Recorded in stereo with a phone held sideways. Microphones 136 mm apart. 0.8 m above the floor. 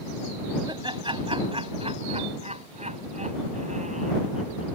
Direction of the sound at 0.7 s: 35° right (ahead or behind).